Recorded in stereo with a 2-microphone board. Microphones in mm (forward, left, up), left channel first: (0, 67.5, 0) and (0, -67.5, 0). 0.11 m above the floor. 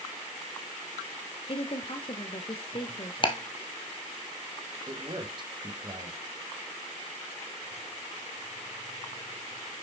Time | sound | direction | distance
1.5 | a woman speaking | 40° left (ahead or behind) | 1.8 m
3.2 | ticking | 35° left (ahead or behind) | 1.8 m
4.9 | a man speaking | 35° right (ahead or behind) | 4 m